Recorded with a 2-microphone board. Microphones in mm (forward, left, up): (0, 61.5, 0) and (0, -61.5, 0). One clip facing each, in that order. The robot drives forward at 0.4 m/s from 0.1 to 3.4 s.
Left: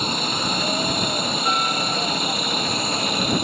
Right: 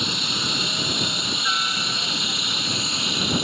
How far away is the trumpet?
No trumpet in this recording.